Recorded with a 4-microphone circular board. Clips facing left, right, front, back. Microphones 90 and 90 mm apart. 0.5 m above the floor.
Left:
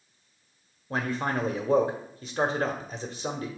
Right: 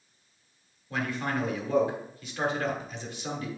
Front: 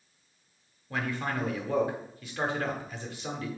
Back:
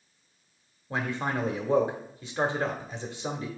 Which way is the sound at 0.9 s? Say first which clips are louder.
Left 2 dB, back 2 dB; 125° left.